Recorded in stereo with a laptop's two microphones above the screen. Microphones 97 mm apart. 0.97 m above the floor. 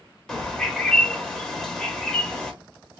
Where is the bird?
5° left (ahead or behind), 0.9 m.